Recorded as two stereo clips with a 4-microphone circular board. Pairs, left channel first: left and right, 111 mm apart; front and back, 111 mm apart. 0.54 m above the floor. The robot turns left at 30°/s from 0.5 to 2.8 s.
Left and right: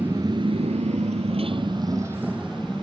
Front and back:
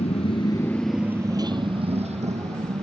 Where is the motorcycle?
20° right; by 2.8 s 175° left.